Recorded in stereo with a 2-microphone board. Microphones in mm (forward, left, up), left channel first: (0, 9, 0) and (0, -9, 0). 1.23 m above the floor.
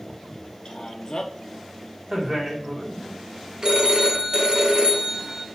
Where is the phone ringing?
50° right (ahead or behind), 0.7 m.